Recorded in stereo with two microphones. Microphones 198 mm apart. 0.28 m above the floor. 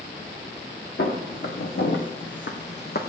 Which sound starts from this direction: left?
Footsteps, at 1.0 s.